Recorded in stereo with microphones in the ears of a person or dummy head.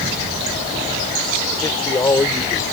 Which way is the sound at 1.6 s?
15° left (ahead or behind).